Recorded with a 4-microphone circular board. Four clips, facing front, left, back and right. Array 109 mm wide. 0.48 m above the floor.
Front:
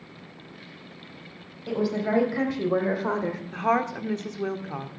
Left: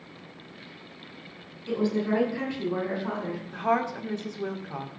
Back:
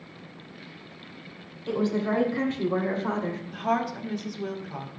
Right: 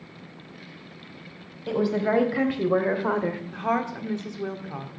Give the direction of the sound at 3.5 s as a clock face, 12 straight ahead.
12 o'clock.